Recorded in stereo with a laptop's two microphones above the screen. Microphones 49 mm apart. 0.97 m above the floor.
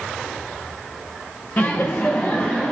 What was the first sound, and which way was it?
Laughter, 40° left (ahead or behind).